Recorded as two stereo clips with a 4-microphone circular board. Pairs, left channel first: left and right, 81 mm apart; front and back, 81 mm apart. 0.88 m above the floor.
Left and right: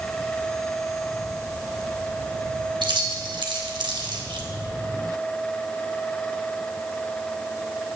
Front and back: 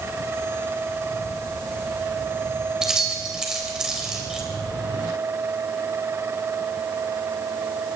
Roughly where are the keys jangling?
Right.